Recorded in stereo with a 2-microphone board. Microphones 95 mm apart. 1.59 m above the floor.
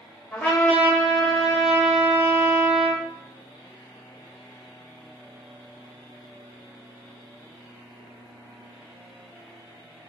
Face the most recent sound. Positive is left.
turn(degrees=10)  # may be behind; listen again after turning